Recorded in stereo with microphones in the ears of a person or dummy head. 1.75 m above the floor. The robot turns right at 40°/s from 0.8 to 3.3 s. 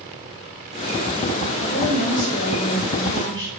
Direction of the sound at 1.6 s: 50° left.